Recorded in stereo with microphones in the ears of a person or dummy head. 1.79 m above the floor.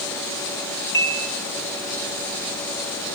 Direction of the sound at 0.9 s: 15° left (ahead or behind).